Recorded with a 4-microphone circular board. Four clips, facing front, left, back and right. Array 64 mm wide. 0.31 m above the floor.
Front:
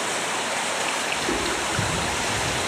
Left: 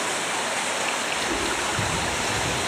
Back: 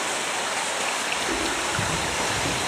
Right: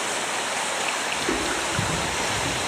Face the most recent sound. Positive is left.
turn(degrees=180)